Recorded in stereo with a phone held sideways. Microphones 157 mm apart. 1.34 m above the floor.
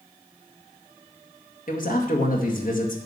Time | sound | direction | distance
1.7 | a man speaking | 65° left (ahead or behind) | 2.0 m